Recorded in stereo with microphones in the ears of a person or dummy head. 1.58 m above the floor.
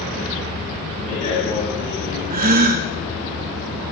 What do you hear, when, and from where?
1.0 s a man speaking: 45° left (ahead or behind), 9.5 m; by 2.2 s 40° left (ahead or behind), 11 m
2.3 s a gasp: 50° right (ahead or behind), 0.9 m